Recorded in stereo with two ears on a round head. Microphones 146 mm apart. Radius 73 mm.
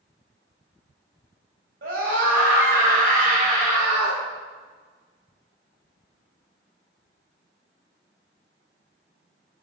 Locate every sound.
1.8 s a scream: 65° right (ahead or behind), 4 m; by 4.2 s 45° right (ahead or behind), 5.5 m